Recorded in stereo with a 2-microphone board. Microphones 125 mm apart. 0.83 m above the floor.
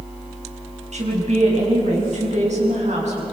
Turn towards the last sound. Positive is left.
turn(degrees=-70)  # may be behind; listen again after turning